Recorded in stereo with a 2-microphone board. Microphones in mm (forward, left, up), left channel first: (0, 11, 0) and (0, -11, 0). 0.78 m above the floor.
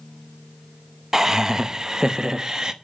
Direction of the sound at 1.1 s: 20° right (ahead or behind).